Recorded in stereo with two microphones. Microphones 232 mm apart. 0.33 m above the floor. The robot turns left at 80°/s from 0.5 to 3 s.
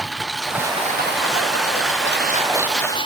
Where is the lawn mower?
Centre (ahead or behind); by 3.1 s 20° left (ahead or behind).